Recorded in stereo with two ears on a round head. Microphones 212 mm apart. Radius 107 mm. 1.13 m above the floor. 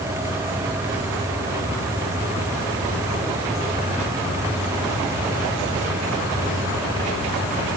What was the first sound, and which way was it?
Only background noise.